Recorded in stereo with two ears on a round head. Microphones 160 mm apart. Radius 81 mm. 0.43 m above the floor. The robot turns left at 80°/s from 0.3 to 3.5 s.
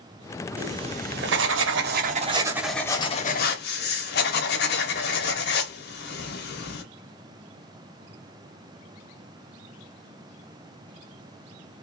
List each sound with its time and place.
0.6 s writing: 10° right, 0.6 m; by 6.8 s 115° left, 0.6 m